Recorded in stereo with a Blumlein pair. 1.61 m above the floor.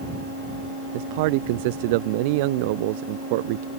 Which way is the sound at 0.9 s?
50° right.